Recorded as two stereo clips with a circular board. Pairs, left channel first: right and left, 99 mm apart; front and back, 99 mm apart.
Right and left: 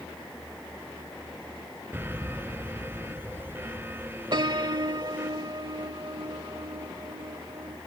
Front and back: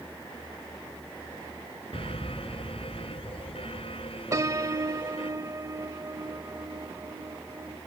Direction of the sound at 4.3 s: 125° left.